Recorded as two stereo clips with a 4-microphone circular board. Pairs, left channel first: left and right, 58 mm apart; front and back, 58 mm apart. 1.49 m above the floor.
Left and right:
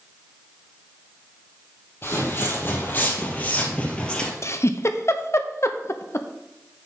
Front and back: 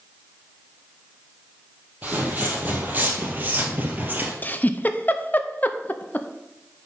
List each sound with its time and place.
2.0 s footsteps: 130° left, 2.5 m; by 4.3 s 155° left, 1.7 m
4.4 s a giggle: 60° left, 0.7 m